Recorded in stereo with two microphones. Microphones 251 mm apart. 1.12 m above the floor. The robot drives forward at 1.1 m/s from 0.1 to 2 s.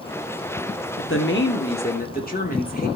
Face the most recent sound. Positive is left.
turn(degrees=35)  # may be behind; listen again after turning